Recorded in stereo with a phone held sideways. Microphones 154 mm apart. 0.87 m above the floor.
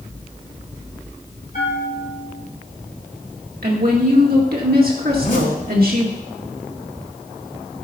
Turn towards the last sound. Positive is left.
turn(degrees=65)  # may be behind; listen again after turning